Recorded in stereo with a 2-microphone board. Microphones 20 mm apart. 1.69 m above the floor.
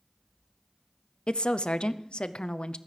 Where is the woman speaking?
65° left (ahead or behind), 0.6 m.